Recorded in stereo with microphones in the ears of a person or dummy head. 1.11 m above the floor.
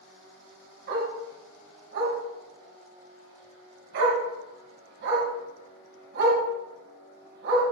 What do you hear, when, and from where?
0.9 s a dog barking: 70° right (ahead or behind), 2.5 m